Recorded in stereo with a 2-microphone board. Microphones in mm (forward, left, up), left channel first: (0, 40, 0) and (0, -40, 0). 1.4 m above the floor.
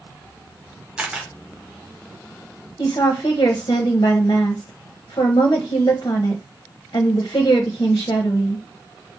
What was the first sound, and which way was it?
A camera shutter, 15° right (ahead or behind).